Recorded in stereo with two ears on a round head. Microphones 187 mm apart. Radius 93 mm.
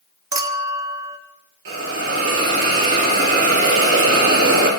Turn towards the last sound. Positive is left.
turn(degrees=-60)  # may be behind; listen again after turning